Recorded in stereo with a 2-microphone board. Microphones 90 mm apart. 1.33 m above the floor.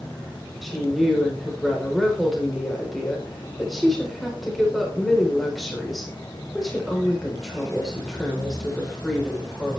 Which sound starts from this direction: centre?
A woman speaking, at 0.6 s.